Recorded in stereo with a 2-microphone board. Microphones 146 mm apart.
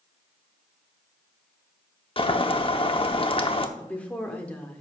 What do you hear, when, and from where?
2.2 s boiling: 40° left (ahead or behind), 0.8 m
3.8 s a woman speaking: 10° left (ahead or behind), 1.4 m